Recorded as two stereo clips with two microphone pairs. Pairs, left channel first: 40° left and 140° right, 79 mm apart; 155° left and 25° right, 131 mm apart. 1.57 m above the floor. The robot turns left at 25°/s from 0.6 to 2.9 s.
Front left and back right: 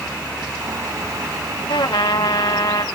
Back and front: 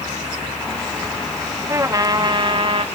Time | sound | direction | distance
1.7 | a trumpet | 40° left | ?